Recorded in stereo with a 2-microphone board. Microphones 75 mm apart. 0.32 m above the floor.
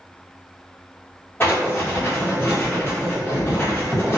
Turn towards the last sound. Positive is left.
turn(degrees=30)  # may be behind; listen again after turning